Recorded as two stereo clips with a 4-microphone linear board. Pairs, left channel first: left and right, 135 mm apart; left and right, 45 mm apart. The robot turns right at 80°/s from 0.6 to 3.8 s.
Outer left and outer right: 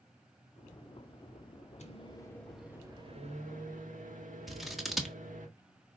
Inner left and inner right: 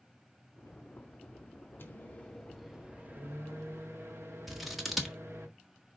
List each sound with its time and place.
1.8 s a microwave: 120° left, 1.8 m; by 5.5 s 80° right, 1.8 m
4.5 s scissors: centre (ahead or behind), 1.5 m